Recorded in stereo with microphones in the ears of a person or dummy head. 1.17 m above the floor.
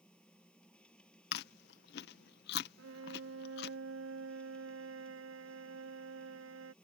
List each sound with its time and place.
0.0 s a machine running: 5° left (ahead or behind)
1.3 s chewing: 50° left (ahead or behind)
2.8 s a violin: 80° right